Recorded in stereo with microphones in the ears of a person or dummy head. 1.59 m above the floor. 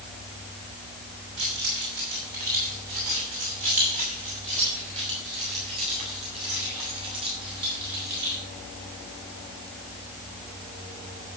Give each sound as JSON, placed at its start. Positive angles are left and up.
{"t": 1.4, "sound": "keys jangling", "side_deg": -50, "distance_m": 6.0}